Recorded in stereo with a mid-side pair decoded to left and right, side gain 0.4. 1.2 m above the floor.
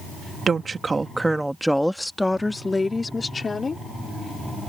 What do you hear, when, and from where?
0.5 s a woman speaking: 45° right; by 3.8 s 35° left